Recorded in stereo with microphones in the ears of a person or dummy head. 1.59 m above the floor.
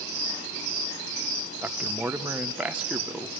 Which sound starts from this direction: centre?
A man speaking, at 1.6 s.